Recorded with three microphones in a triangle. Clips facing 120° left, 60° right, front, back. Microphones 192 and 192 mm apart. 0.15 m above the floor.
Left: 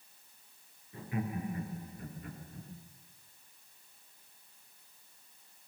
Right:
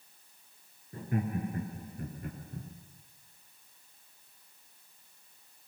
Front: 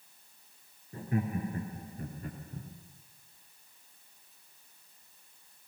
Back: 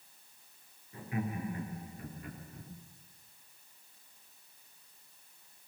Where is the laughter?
35° right, 2.5 m; by 2.7 s 45° right, 4 m.